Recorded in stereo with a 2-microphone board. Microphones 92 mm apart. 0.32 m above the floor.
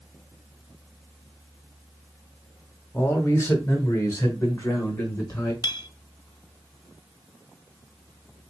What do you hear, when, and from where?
2.9 s a man speaking: 25° left (ahead or behind), 1.8 m; by 5.5 s 40° left (ahead or behind), 3 m
5.6 s a clink: 50° left (ahead or behind), 0.7 m